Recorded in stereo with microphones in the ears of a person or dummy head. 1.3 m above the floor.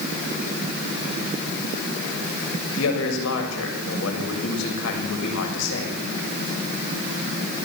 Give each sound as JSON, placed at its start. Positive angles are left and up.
{"t": 2.8, "sound": "a man speaking", "side_deg": 70, "distance_m": 7.0}